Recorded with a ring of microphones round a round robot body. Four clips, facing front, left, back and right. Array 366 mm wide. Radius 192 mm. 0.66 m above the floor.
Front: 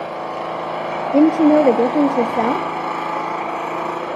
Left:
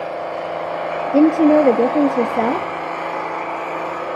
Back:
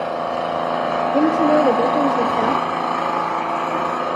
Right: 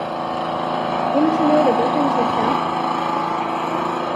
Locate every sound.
0.0 s an engine running: 110° right, 3 m
1.1 s a woman speaking: 45° left, 0.9 m